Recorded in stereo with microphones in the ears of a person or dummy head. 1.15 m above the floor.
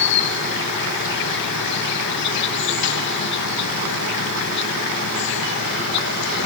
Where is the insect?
60° left (ahead or behind).